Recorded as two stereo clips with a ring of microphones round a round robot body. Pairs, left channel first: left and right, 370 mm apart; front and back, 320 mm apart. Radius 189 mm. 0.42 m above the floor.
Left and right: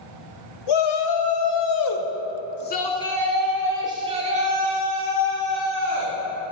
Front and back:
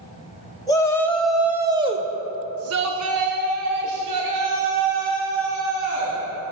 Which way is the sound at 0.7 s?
80° left.